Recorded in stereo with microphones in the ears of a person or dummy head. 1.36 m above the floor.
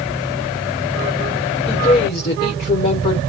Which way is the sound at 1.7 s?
40° left (ahead or behind).